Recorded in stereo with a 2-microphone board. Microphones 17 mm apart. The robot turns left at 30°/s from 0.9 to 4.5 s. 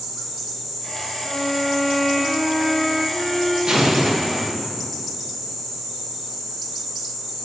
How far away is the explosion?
About 0.6 m.